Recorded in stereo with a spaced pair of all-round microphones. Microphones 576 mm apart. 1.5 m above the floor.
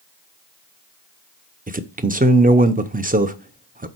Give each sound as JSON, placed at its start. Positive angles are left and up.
{"t": 1.7, "sound": "a man speaking", "side_deg": -15, "distance_m": 0.6}